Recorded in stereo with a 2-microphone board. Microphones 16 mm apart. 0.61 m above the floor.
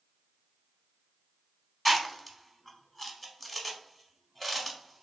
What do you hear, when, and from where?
1.9 s chewing: 10° left (ahead or behind), 0.6 m